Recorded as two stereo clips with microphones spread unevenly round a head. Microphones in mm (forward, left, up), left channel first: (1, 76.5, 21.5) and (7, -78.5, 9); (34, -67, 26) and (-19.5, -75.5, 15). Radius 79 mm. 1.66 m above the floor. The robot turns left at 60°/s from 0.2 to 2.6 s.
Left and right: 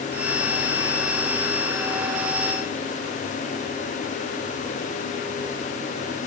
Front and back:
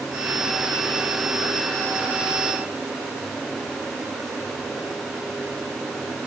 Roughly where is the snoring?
No snoring in this recording.